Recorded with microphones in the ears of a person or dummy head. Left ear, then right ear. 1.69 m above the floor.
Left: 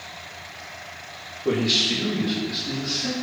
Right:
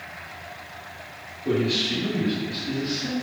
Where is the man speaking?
75° left (ahead or behind), 0.6 m; by 3.1 s 25° right (ahead or behind), 1.1 m.